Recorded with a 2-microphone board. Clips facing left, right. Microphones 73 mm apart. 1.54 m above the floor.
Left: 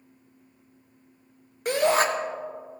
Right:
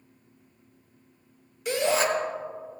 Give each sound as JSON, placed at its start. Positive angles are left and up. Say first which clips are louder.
{"t": 1.6, "sound": "a shout", "louder": "left 3 dB", "side_deg": 50, "distance_m": 1.2}